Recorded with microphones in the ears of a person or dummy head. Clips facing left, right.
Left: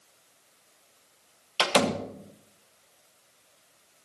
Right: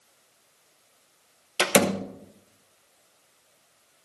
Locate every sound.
1.6 s a door slam: 25° right (ahead or behind), 1.0 m